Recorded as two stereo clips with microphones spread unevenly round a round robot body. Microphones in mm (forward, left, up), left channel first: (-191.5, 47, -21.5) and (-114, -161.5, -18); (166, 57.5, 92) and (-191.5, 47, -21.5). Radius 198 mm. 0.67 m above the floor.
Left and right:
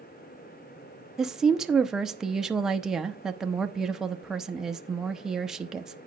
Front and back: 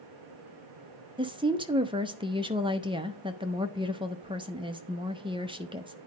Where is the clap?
No clap in this recording.